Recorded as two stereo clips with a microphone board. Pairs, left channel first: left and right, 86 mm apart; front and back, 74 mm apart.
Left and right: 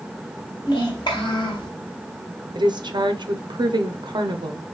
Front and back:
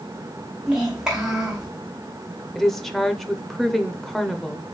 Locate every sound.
0.7 s a child speaking: 95° left, 1.7 m
2.5 s a woman speaking: 85° right, 0.6 m